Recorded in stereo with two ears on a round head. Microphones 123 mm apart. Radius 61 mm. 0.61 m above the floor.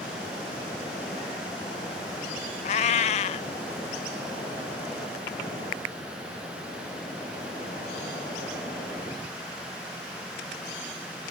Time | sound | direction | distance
2.6 | a cat meowing | 50° left (ahead or behind) | 0.5 m